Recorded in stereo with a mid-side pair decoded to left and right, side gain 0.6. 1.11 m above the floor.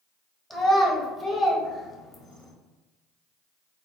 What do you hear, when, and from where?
0.5 s a child speaking: 5° left, 1.4 m